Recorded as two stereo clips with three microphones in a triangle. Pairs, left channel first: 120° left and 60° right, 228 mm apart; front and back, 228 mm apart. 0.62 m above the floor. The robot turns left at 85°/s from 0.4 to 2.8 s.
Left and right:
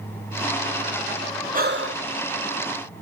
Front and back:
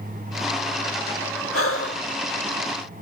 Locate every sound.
1.5 s breathing: 5° right, 1.6 m; by 2.1 s 50° right, 1.6 m